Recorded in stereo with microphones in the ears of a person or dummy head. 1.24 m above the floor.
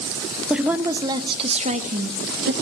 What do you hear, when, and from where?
0.5 s a woman speaking: 10° right (ahead or behind), 1.1 m; by 2.5 s 70° right (ahead or behind), 1.2 m